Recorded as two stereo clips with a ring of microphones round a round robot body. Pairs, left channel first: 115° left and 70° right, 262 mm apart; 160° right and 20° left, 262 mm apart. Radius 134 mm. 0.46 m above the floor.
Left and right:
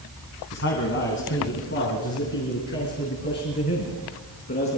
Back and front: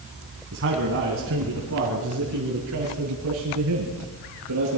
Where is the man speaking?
65° left, 4 m; by 4.8 s 55° left, 6 m.